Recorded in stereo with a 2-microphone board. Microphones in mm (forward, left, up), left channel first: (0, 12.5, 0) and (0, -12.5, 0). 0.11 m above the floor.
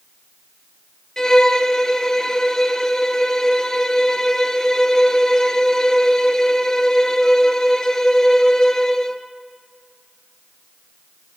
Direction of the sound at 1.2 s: 25° left (ahead or behind).